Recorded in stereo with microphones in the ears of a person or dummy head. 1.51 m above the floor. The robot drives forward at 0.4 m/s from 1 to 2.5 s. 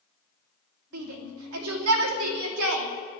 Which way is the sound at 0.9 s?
80° right.